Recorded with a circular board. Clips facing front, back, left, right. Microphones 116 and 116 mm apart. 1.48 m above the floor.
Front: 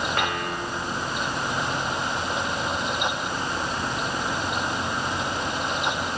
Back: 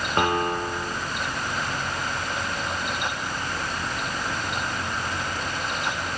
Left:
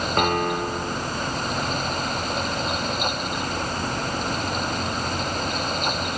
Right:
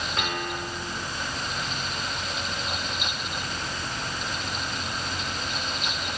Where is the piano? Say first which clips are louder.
Back 4 dB, left 10 dB; 125° left, 2 m.